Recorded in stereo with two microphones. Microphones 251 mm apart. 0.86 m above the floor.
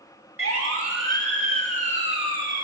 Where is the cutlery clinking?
I don't hear cutlery clinking.